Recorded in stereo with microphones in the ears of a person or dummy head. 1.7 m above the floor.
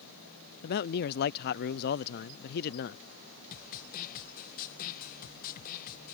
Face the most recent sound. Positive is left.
turn(degrees=55)  # may be behind; listen again after turning